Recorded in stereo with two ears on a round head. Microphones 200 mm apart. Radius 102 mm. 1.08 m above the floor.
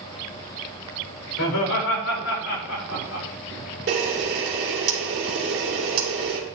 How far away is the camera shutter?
About 3 m.